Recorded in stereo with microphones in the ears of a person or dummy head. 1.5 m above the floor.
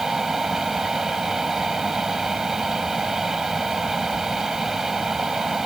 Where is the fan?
Centre (ahead or behind).